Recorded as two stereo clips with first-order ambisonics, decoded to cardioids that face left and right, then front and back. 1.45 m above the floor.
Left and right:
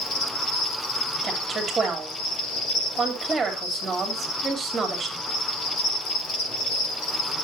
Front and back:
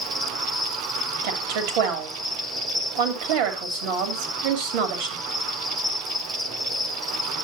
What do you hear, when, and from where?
0.0 s an insect: 90° left, 4 m
1.2 s a woman speaking: 170° right, 3 m